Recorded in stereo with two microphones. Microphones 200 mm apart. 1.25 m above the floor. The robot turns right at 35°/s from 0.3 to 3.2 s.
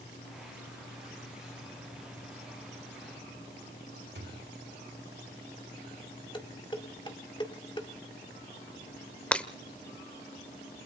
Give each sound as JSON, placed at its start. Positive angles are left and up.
{"t": 4.2, "sound": "a thud", "side_deg": -65, "distance_m": 1.3}
{"t": 6.3, "sound": "dishes clattering", "side_deg": 25, "distance_m": 1.9}
{"t": 9.3, "sound": "breaking glass", "side_deg": 5, "distance_m": 1.0}